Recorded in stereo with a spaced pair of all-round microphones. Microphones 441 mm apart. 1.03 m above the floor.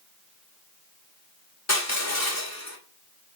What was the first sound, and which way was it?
Crushing, 35° left (ahead or behind).